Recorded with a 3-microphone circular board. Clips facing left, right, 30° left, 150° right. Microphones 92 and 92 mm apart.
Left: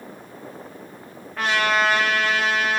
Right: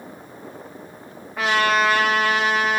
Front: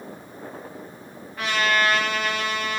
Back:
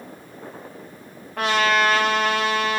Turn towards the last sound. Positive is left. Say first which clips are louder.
# right 2 dB, back 3 dB
turn(degrees=-175)